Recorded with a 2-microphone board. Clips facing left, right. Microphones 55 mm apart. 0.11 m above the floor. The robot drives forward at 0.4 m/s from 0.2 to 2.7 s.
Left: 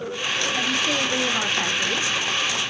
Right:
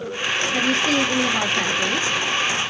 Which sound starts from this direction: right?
A woman speaking, at 0.5 s.